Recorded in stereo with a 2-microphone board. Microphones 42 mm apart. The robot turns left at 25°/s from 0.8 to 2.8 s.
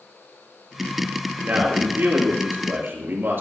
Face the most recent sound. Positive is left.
turn(degrees=-80)